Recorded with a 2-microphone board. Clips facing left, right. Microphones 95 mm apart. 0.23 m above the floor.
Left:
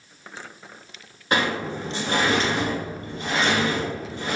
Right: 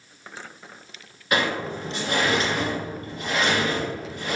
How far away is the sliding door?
About 1.3 m.